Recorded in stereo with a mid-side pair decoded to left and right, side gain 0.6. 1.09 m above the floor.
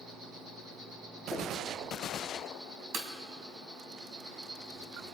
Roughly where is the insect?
Ahead right.